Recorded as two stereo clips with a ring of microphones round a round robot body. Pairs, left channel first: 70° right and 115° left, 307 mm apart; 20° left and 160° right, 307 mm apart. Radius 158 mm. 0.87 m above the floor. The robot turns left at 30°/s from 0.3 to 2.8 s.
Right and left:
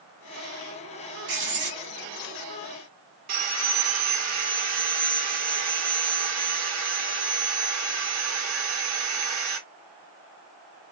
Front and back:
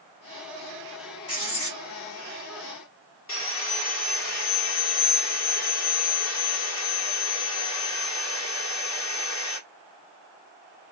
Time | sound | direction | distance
1.3 | writing | 80° left | 1.7 m
3.3 | sawing | 75° left | 1.2 m